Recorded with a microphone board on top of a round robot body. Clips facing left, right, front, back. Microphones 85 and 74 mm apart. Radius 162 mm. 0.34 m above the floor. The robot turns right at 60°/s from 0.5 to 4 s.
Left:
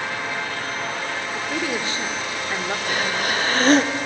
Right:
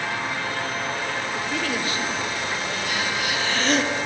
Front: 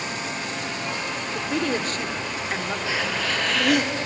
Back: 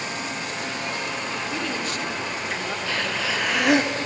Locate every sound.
1.3 s a woman speaking: straight ahead, 1.9 m; by 2.8 s 90° left, 1.9 m
2.9 s breathing: 70° left, 1.3 m; by 4.0 s 135° left, 1.3 m